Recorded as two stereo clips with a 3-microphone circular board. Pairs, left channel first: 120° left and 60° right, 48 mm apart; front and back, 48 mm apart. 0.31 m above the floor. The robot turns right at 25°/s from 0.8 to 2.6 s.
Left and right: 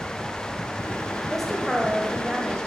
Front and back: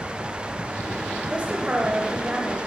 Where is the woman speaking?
155° right, 1.0 m; by 2.6 s 125° right, 1.0 m.